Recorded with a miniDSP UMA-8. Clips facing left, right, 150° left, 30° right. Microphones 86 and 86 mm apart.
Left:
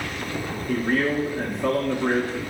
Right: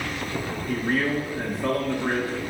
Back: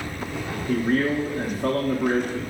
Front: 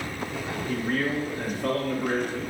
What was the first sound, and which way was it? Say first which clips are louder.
A man speaking: left 2 dB, back 6 dB; straight behind.